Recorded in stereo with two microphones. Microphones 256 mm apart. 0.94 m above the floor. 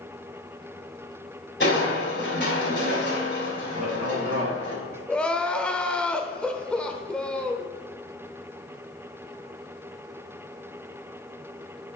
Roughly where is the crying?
Centre.